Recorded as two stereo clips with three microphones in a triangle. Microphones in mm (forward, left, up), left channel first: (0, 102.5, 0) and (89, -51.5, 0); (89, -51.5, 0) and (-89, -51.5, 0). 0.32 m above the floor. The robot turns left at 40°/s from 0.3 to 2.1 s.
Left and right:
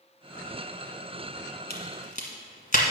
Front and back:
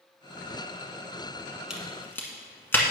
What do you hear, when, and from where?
1.7 s a crack: 95° left, 1.5 m; by 2.8 s 80° left, 1.5 m